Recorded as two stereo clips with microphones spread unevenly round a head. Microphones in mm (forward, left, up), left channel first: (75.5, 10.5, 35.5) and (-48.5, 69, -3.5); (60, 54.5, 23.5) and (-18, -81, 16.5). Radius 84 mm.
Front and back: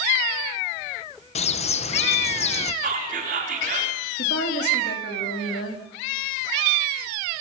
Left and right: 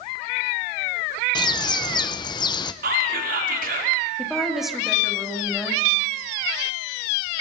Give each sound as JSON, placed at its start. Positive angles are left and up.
{"t": 1.4, "sound": "a bird", "azimuth_deg": 0, "distance_m": 0.8}
{"t": 2.8, "sound": "whispering", "azimuth_deg": -160, "distance_m": 4.5}
{"t": 4.2, "sound": "a woman speaking", "azimuth_deg": -30, "distance_m": 4.0}